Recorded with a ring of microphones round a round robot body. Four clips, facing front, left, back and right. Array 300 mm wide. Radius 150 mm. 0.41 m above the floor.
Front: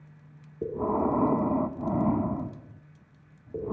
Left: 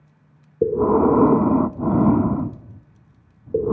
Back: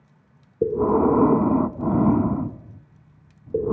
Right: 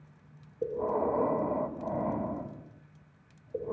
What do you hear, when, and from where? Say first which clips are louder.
0.6 s breathing: left 13 dB, back 8 dB; 120° left, 0.7 m